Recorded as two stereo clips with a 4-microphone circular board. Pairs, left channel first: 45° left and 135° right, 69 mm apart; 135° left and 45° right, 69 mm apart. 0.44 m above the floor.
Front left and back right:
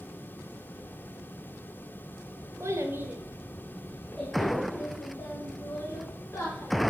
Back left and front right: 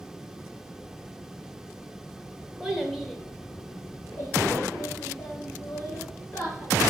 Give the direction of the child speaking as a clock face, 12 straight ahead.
4 o'clock.